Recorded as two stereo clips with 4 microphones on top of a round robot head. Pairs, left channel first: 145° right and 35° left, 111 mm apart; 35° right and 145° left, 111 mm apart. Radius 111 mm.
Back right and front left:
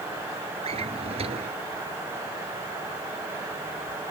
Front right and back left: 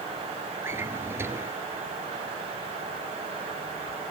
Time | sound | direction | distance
0.6 | a drawer | 75° left | ?